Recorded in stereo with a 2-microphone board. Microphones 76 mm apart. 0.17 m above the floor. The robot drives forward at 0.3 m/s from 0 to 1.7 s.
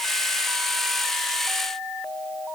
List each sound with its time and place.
Only background noise.